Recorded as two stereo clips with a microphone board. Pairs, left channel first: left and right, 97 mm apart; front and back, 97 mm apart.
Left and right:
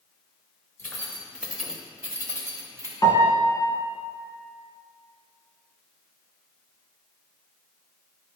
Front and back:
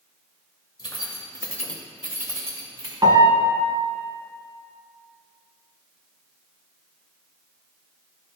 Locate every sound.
0.8 s keys jangling: 25° left, 1.6 m; by 2.9 s 145° right, 2 m
3.0 s a piano: 135° left, 1.0 m